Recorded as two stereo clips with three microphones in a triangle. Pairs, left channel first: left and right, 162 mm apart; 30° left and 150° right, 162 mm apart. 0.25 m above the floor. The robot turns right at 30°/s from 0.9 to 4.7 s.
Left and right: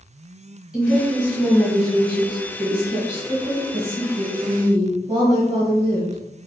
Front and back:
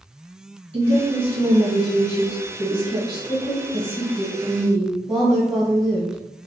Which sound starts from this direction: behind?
A woman speaking, at 0.7 s.